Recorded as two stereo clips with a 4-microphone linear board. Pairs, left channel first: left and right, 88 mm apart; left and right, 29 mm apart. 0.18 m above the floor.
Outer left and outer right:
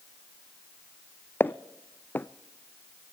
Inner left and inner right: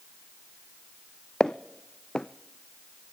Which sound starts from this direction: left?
Footsteps, at 1.4 s.